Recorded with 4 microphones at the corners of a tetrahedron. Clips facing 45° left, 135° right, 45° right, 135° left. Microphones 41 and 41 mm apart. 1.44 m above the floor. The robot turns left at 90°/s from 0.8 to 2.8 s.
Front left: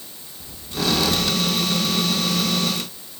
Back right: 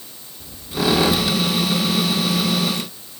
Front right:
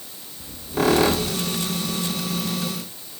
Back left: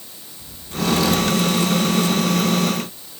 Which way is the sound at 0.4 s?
65° right.